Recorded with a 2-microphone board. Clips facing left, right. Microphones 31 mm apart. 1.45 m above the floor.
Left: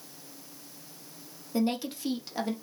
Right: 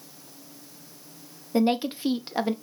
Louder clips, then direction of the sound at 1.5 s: Right 6 dB; 30° right (ahead or behind).